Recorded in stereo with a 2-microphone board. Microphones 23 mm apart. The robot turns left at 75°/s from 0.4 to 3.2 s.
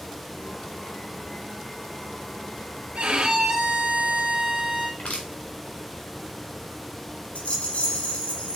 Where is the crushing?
80° left, 4 m.